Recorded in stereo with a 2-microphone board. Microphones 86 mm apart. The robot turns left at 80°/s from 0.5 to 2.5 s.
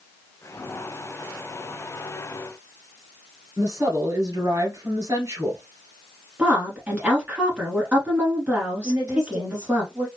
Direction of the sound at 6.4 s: 20° right (ahead or behind).